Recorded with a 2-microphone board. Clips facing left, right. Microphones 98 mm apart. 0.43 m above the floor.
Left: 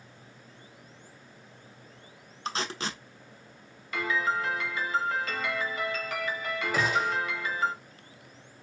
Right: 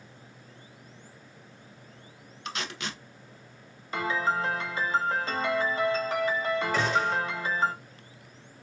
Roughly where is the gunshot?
Centre.